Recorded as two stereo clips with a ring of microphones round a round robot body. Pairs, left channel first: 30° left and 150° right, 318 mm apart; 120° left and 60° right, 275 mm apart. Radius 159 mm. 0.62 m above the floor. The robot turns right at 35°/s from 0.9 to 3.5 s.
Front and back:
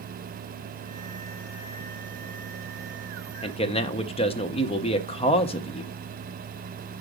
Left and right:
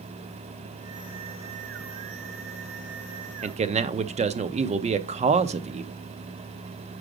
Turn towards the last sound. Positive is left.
turn(degrees=-20)